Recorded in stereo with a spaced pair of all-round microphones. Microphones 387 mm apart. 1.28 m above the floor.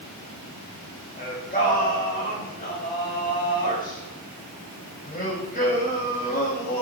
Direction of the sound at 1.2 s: 25° left (ahead or behind).